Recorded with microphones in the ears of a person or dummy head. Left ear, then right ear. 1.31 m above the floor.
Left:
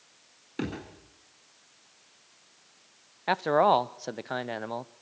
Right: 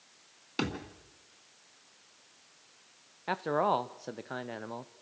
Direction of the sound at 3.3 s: 25° left (ahead or behind).